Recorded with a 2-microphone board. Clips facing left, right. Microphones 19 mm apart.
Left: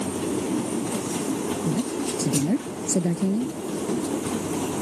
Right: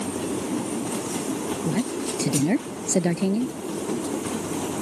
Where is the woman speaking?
65° right (ahead or behind).